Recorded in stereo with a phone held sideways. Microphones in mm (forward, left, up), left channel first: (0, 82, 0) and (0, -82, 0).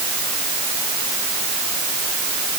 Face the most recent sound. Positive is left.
No sound to turn to.